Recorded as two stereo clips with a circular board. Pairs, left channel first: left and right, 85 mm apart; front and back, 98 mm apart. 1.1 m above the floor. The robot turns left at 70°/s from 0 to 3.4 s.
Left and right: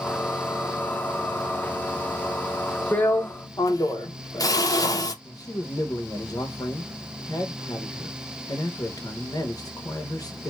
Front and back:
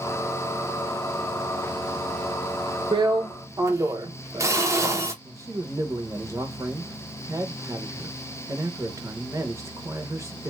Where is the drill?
160° left, 0.6 m; by 5.1 s 125° left, 0.6 m.